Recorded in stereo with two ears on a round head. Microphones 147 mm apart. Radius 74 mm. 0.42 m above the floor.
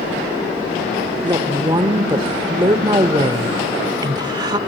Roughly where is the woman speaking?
Right.